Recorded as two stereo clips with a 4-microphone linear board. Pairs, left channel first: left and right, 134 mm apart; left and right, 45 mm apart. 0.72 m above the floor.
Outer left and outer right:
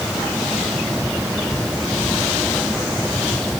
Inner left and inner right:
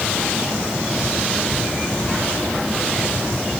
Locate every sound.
Only background noise.